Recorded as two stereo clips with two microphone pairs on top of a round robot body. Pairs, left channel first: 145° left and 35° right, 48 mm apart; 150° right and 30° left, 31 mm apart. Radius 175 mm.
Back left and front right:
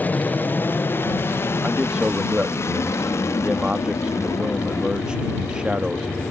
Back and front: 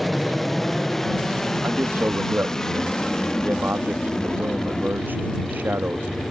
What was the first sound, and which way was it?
An aircraft, 130° left.